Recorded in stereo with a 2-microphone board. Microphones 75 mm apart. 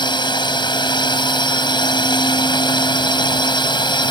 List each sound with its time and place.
0.0 s a drone: 80° left